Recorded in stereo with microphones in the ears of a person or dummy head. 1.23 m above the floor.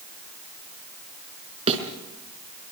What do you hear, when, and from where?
1.7 s a thud: 40° right (ahead or behind), 4 m